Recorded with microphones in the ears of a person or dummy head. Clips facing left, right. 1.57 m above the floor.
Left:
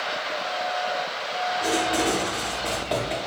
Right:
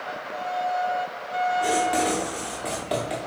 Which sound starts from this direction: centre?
Writing, at 1.6 s.